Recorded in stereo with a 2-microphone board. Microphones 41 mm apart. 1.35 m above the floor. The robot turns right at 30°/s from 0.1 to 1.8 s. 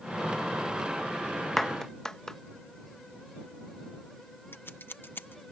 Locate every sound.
1.6 s a clap: 10° left (ahead or behind); by 2.4 s 15° left (ahead or behind)
4.5 s scissors: 60° left (ahead or behind)